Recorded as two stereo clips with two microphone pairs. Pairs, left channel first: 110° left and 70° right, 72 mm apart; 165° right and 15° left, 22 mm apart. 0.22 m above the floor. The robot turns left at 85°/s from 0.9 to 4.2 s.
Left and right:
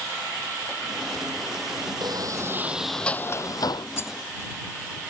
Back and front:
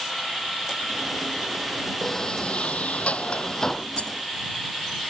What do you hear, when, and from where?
2.0 s a sliding door: 85° right; by 3.9 s 115° left
4.0 s a rattle: 170° left; by 4.1 s 155° left